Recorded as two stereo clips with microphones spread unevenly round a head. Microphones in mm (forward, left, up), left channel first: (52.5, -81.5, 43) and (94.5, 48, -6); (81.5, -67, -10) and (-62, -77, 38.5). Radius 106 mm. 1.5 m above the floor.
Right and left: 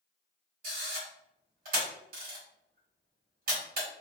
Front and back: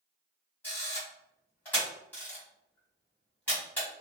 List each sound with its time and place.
0.6 s a camera shutter: 105° left, 1.2 m